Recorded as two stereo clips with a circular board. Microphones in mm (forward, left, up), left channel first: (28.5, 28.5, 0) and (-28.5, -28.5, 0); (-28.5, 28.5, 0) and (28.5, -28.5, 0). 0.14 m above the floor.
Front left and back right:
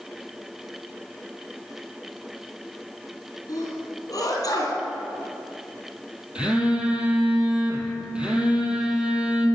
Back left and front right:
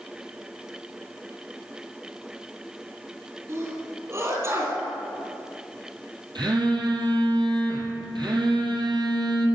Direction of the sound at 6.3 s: 60° right.